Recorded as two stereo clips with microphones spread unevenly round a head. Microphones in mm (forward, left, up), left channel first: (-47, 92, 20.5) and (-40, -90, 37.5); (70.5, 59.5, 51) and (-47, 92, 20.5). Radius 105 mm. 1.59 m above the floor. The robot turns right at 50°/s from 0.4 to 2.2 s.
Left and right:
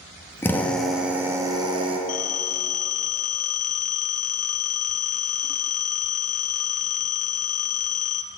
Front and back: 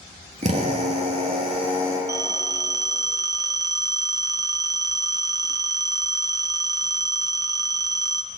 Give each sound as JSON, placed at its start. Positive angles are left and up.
{"t": 0.4, "sound": "a drill", "azimuth_deg": 165, "distance_m": 1.1}
{"t": 2.1, "sound": "a phone ringing", "azimuth_deg": 95, "distance_m": 0.5}